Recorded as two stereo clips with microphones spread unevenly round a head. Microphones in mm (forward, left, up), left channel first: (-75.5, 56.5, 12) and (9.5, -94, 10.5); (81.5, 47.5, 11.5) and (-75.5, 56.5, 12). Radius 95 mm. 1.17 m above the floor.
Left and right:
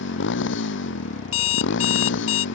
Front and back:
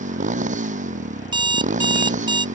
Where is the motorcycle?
135° left.